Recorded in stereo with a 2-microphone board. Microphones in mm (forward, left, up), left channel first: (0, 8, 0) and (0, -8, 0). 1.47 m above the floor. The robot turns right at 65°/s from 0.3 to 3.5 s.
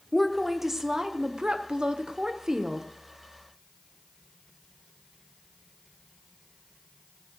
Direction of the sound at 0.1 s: 175° left.